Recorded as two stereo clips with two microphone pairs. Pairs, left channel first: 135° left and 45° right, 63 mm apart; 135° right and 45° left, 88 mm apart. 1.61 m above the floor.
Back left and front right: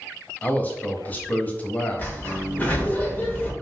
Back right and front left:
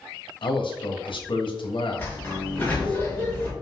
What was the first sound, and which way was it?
A man speaking, 160° right.